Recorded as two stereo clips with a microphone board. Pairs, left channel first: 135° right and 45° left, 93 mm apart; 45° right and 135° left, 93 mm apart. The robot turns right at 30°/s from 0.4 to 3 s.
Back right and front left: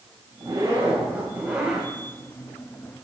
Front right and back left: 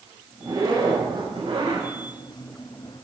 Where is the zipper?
90° left, 6 m; by 1.9 s 135° left, 6 m.